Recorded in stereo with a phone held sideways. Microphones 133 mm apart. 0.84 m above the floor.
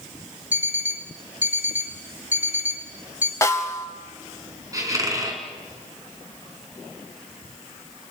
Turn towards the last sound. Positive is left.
turn(degrees=-25)  # may be behind; listen again after turning